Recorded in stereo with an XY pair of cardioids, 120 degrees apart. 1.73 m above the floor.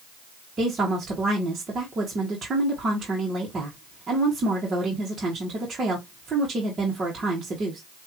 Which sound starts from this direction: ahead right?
A woman speaking, at 0.6 s.